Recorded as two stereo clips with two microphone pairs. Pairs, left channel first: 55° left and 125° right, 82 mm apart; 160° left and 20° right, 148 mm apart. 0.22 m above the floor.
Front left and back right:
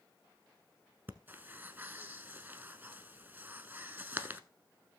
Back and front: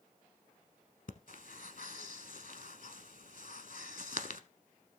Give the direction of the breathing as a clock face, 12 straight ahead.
6 o'clock.